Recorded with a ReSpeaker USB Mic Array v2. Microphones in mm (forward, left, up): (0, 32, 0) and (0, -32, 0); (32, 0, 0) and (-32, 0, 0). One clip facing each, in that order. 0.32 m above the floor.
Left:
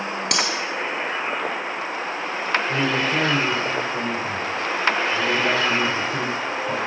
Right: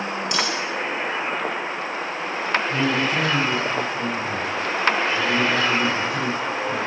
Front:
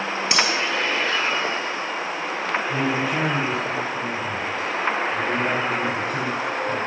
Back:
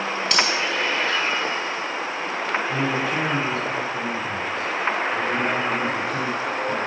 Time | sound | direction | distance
0.3 | cutlery clinking | 75° left | 3.5 m
2.7 | a man speaking | 90° left | 6 m